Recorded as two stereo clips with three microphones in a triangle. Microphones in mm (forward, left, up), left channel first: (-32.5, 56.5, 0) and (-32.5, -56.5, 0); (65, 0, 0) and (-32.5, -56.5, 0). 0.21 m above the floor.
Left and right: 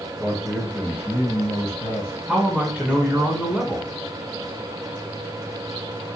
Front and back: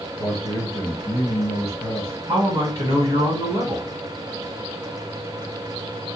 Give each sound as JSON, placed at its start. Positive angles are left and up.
{"t": 0.2, "sound": "a man speaking", "azimuth_deg": -20, "distance_m": 1.4}
{"t": 2.3, "sound": "a man speaking", "azimuth_deg": -175, "distance_m": 1.3}